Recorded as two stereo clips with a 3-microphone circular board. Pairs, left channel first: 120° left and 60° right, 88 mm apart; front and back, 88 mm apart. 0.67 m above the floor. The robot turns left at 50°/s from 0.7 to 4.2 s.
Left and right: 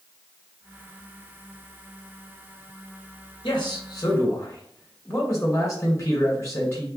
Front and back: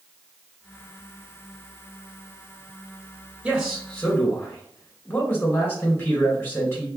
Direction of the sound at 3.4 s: 100° left.